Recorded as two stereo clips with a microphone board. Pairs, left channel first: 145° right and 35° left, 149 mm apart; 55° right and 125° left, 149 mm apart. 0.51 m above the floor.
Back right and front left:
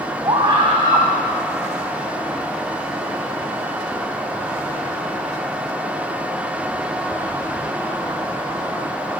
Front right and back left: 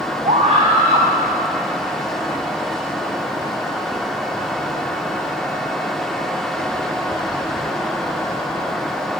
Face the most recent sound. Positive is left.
turn(degrees=90)